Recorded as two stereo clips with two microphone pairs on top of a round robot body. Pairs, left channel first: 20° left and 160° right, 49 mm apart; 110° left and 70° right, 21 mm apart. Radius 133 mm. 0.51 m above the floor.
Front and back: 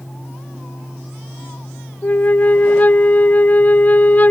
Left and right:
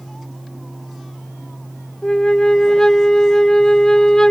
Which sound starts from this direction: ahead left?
A flute, at 2.0 s.